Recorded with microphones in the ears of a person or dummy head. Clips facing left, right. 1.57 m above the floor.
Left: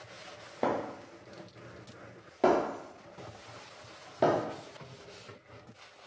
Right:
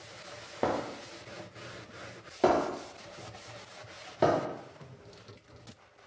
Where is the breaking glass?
5° right (ahead or behind), 0.8 m.